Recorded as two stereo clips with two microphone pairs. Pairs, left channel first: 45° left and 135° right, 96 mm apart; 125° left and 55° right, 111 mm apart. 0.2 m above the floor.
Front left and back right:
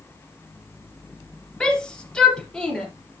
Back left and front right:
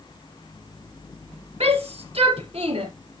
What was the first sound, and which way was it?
A shout, 35° right.